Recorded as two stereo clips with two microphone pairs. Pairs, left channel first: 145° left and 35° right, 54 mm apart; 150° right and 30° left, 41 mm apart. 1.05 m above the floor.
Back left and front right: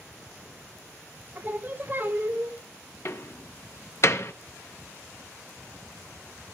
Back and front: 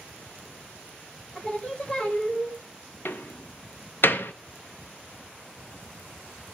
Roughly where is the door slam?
Behind.